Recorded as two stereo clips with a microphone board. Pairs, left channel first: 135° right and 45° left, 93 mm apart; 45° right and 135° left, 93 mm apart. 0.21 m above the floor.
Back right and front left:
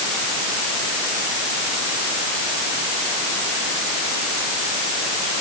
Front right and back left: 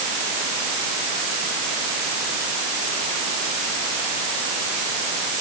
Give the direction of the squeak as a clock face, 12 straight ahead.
No squeak in this recording.